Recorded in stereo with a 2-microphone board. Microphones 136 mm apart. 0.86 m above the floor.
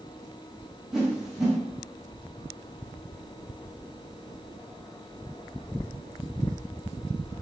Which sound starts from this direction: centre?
A whoosh, at 0.9 s.